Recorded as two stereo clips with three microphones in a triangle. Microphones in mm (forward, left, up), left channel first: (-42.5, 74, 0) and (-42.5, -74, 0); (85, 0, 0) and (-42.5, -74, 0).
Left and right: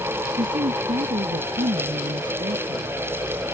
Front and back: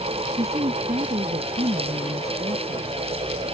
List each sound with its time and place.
0.4 s a woman speaking: 110° right